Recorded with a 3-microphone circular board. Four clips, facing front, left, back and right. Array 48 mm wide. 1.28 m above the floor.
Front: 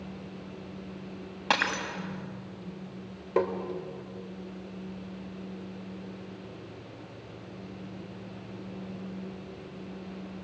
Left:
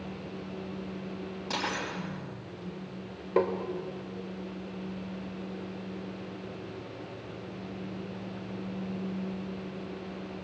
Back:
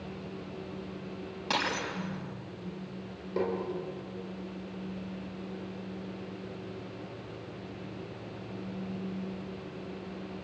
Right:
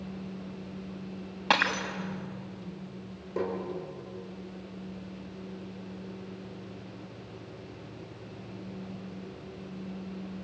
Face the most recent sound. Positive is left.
turn(degrees=45)